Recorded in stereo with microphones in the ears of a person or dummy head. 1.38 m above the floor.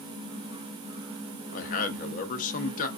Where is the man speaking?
45° left (ahead or behind), 0.6 m.